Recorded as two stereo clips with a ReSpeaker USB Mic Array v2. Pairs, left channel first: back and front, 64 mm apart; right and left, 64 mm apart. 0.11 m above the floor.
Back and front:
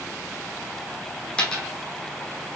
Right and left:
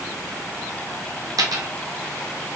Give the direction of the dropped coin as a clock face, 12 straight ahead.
8 o'clock.